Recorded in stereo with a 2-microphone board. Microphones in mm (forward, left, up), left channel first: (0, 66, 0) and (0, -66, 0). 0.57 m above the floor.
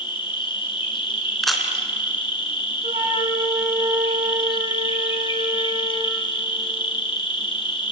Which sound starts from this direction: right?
A flute, at 2.8 s.